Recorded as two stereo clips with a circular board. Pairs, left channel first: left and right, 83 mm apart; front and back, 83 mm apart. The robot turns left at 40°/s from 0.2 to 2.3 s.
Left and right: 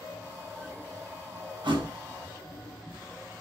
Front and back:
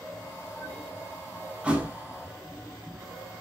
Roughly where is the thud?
Right.